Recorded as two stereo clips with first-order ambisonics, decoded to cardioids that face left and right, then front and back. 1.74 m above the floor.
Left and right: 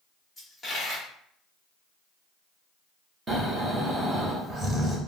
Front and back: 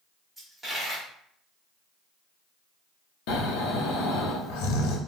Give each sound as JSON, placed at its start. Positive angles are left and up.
{"t": 0.4, "sound": "a dropped coin", "azimuth_deg": 130, "distance_m": 1.0}
{"t": 3.3, "sound": "snoring", "azimuth_deg": -15, "distance_m": 0.6}